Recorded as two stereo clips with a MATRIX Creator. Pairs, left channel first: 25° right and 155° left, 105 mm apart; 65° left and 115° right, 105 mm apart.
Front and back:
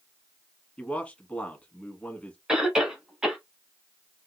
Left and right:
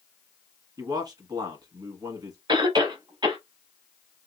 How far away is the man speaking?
About 1.3 m.